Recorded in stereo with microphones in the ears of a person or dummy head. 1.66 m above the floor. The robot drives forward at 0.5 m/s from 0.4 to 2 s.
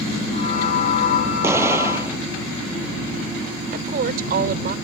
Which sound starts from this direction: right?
A woman speaking, at 3.7 s.